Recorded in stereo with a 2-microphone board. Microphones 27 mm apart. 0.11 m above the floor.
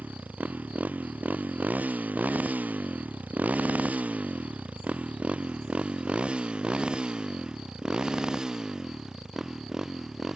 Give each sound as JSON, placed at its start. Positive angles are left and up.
{"t": 0.0, "sound": "a motorcycle", "side_deg": -70}